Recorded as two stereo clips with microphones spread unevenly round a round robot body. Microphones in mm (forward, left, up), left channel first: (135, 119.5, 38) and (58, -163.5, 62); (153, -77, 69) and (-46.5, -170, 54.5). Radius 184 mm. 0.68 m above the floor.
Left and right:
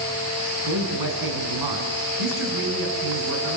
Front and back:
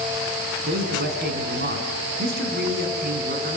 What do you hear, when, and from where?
0.7 s a man speaking: 110° right, 6.5 m